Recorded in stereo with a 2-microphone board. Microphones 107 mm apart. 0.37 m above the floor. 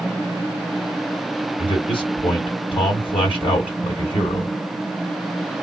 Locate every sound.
1.6 s a man speaking: 55° left (ahead or behind), 2 m